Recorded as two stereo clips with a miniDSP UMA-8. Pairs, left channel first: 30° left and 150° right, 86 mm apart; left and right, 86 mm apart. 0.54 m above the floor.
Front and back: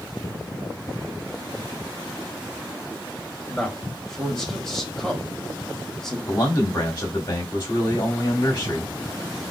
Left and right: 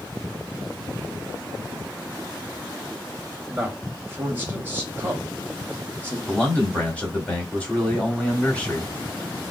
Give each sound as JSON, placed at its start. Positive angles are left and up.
{"t": 3.5, "sound": "a man speaking", "azimuth_deg": -50, "distance_m": 0.9}
{"t": 6.3, "sound": "a man speaking", "azimuth_deg": 20, "distance_m": 1.0}